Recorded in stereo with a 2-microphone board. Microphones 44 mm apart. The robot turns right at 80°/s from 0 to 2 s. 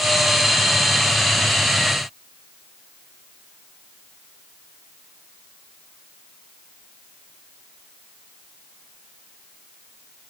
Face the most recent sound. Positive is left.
No sound to turn to.